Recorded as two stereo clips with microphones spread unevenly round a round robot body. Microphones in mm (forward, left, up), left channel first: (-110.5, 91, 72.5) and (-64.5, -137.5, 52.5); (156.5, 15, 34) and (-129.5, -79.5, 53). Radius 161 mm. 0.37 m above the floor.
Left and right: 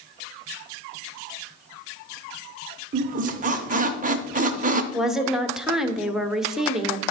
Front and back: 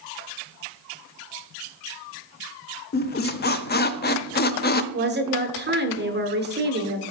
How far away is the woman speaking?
About 1.1 m.